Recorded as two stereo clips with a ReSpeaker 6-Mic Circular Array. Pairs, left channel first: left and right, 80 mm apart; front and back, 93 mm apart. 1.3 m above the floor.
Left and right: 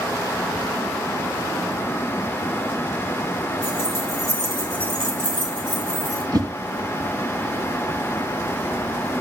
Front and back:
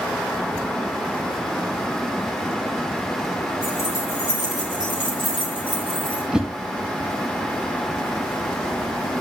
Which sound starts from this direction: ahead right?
Keys jangling, at 3.6 s.